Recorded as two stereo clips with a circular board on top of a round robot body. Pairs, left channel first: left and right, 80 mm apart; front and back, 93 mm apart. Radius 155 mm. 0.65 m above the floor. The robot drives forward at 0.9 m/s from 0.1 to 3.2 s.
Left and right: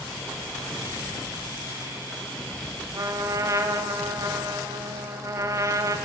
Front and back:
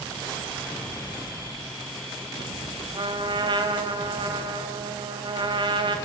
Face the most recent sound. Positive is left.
turn(degrees=-145)